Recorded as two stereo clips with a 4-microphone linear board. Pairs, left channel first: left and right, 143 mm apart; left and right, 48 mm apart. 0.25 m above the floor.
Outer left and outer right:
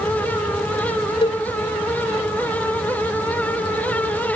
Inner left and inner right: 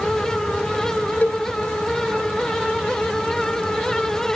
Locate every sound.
1.2 s a cowbell: 40° left (ahead or behind), 0.6 m